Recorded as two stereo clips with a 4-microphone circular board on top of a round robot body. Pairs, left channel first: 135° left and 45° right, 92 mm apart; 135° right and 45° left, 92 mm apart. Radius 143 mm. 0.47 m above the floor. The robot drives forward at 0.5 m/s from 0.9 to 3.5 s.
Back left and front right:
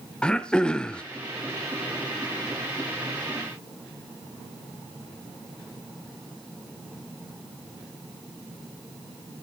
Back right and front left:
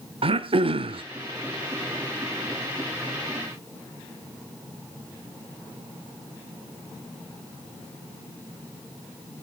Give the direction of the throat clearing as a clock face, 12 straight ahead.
10 o'clock.